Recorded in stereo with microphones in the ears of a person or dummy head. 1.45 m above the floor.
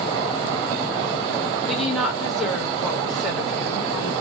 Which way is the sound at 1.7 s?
Centre (ahead or behind).